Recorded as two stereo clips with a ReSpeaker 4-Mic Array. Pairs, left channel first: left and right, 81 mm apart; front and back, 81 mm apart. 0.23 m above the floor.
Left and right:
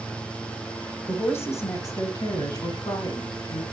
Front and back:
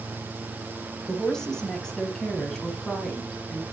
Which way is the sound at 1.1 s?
75° left.